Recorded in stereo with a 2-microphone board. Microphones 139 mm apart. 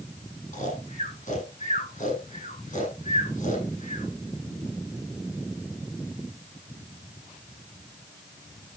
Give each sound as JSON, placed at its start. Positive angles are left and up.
{"t": 0.5, "sound": "snoring", "side_deg": 65, "distance_m": 7.0}